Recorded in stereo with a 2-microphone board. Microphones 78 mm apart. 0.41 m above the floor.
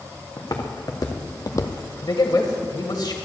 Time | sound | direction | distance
0.4 | footsteps | 50° left (ahead or behind) | 1.9 m
2.0 | a man speaking | 60° left (ahead or behind) | 1.6 m